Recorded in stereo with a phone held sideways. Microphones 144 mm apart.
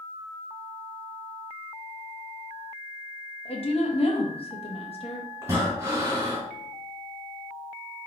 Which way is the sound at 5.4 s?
20° right (ahead or behind).